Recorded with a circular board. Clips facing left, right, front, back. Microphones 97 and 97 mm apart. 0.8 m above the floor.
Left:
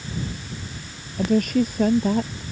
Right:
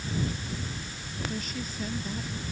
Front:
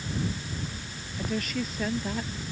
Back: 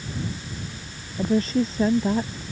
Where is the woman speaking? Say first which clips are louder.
Left 16 dB, back 9 dB; 120° left.